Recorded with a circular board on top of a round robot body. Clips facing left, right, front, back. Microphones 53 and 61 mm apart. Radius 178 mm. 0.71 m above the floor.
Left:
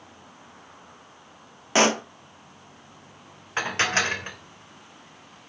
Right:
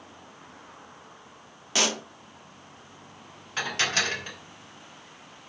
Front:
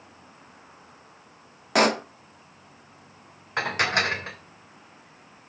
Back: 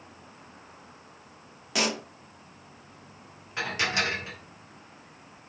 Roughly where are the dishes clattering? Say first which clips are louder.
Left 3 dB, front 4 dB; ahead left.